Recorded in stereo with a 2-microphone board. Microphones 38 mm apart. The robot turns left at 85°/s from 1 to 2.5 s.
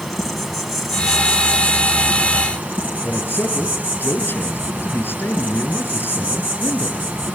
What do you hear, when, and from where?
0.0 s an insect: straight ahead, 5.5 m; by 7.4 s 125° right, 5.5 m
3.0 s a man speaking: 70° left (ahead or behind), 6.5 m